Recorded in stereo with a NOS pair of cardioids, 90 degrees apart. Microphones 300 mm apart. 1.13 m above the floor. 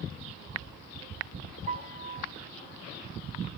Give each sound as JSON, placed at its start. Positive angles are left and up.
{"t": 1.7, "sound": "a piano", "azimuth_deg": -25, "distance_m": 0.6}